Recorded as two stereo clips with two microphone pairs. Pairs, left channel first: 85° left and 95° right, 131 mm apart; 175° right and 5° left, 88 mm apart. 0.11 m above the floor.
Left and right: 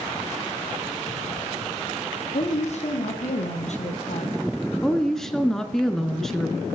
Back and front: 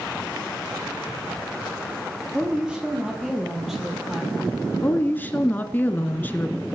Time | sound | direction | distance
2.3 | a woman speaking | 85° left | 3 m
4.8 | a woman speaking | 170° left | 1.2 m